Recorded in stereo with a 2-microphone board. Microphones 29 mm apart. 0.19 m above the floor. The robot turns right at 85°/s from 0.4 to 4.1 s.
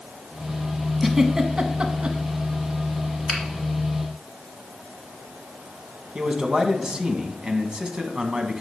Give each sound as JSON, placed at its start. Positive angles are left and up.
{"t": 1.0, "sound": "a giggle", "side_deg": 0, "distance_m": 0.9}
{"t": 3.3, "sound": "a finger snap", "side_deg": 0, "distance_m": 1.7}
{"t": 6.2, "sound": "a man speaking", "side_deg": -35, "distance_m": 1.2}